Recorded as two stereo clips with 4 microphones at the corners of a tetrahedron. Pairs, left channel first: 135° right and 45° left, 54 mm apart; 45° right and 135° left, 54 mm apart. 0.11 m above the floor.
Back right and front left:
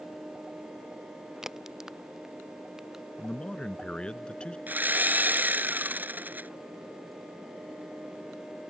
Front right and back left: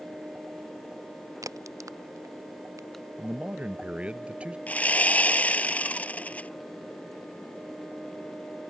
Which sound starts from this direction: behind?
A man speaking, at 3.2 s.